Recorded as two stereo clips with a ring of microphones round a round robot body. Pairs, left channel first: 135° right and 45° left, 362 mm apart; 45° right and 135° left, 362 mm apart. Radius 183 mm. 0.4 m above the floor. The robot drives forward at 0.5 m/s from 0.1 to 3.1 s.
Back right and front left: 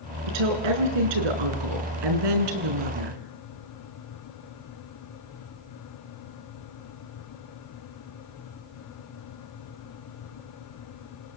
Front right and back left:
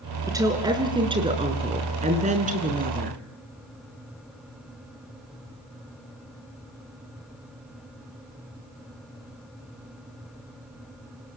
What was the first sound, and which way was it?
A woman speaking, 55° left.